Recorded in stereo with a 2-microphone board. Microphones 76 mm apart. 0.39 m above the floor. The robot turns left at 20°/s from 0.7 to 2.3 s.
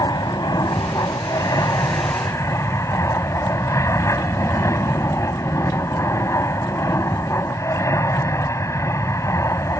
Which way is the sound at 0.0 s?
80° left.